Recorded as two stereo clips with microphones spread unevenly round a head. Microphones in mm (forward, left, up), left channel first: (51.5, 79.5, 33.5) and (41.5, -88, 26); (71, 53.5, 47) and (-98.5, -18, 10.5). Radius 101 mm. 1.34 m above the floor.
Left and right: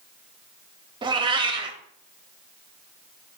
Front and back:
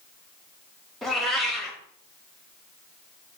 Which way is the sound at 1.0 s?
45° right.